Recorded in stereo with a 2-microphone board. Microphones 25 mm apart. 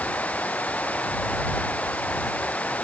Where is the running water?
65° left (ahead or behind).